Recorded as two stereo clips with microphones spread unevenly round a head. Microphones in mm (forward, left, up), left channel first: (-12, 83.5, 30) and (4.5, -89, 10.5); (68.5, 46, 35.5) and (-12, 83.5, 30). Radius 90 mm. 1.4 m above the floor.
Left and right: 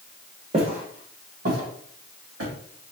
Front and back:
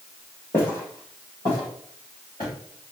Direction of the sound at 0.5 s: 50° right.